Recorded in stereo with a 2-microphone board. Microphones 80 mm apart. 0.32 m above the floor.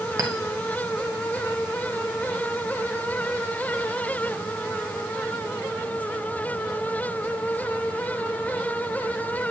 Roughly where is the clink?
Right.